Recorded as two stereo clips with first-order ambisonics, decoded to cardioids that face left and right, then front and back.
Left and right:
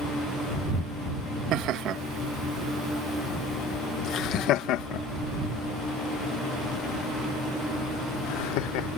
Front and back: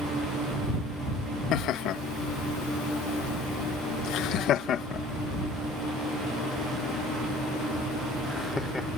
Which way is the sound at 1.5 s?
45° right.